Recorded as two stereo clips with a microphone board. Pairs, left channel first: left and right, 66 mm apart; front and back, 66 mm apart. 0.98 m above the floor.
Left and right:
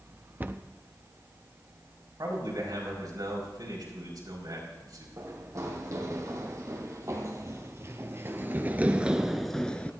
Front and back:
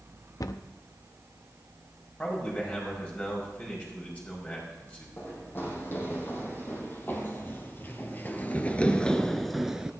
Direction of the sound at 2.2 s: 70° right.